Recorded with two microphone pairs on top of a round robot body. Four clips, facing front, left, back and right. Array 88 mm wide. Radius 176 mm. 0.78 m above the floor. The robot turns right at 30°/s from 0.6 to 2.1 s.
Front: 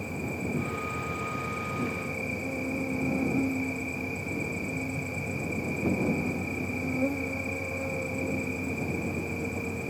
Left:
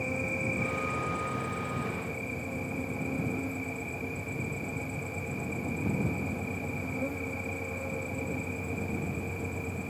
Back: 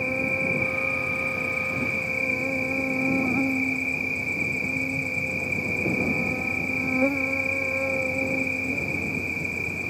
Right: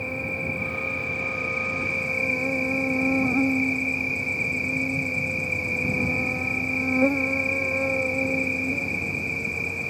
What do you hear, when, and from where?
0.0 s an insect: 170° right; by 9.9 s 125° right